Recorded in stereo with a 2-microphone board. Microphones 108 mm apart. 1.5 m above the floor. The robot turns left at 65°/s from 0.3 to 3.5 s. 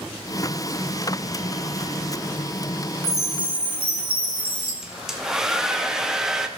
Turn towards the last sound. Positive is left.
turn(degrees=-5)  # may be behind; listen again after turning